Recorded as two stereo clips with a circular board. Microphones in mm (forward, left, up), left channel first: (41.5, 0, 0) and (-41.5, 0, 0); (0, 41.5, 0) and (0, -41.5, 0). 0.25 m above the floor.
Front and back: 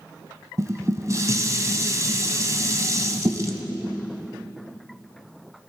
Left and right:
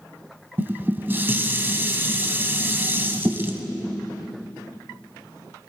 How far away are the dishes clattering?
About 1.0 m.